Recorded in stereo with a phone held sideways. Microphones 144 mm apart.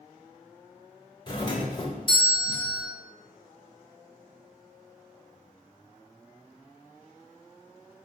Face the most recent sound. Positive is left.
turn(degrees=35)  # may be behind; listen again after turning